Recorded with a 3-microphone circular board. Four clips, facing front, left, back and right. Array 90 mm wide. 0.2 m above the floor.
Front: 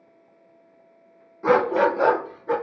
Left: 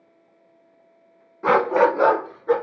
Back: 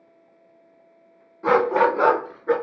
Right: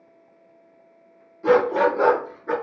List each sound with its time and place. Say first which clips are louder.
1.4 s a dog barking: left 1 dB, back 1 dB; 95° left, 0.7 m; by 2.5 s 170° right, 1.3 m